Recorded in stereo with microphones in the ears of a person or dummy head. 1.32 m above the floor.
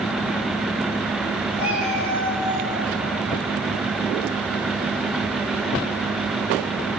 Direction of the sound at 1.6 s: 40° left (ahead or behind).